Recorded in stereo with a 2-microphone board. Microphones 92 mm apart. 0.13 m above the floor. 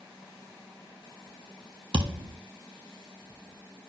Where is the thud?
70° right (ahead or behind), 1.1 m.